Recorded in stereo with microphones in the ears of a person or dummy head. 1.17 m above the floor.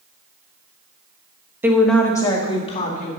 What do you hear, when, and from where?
1.6 s a woman speaking: 5° right (ahead or behind), 1.1 m; by 3.1 s 45° left (ahead or behind), 2.0 m